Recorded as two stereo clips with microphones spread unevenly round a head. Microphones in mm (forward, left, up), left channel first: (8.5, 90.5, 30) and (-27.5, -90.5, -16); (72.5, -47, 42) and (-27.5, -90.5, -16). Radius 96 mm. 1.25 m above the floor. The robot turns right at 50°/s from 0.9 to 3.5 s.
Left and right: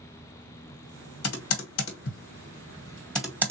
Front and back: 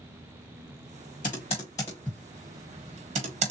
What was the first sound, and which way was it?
Typing on a keyboard, 70° left.